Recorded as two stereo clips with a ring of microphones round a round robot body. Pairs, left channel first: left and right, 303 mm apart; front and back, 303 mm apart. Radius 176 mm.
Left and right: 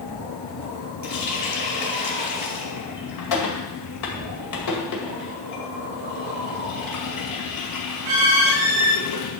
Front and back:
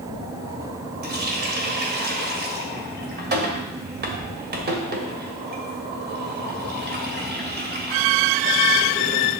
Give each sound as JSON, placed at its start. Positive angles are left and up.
{"t": 1.0, "sound": "a running tap", "azimuth_deg": 120, "distance_m": 2.0}